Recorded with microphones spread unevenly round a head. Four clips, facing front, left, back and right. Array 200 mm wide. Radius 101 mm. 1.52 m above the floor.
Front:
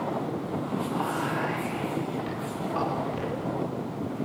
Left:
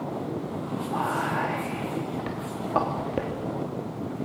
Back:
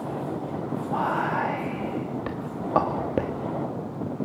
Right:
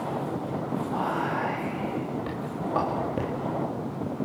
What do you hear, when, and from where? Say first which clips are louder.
0.9 s whispering: left 2 dB, back 7 dB; 165° left, 3 m